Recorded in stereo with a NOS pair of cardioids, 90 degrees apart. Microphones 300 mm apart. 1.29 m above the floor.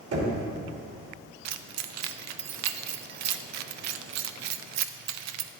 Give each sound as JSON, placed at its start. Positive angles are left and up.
{"t": 0.1, "sound": "knocking", "azimuth_deg": -55, "distance_m": 2.5}
{"t": 1.4, "sound": "keys jangling", "azimuth_deg": -65, "distance_m": 0.5}